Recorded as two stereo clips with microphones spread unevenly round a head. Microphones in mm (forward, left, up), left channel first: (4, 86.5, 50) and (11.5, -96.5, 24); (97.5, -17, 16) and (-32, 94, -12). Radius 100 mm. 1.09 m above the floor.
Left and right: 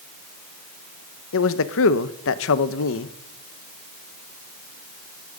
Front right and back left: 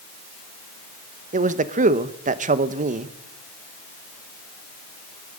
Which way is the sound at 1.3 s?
100° left.